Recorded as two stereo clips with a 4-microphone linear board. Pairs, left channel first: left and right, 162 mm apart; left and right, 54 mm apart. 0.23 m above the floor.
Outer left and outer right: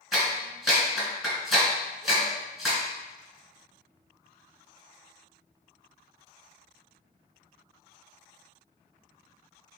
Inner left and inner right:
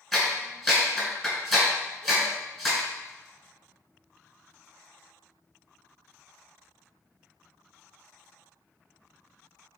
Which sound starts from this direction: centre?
A clap, at 0.1 s.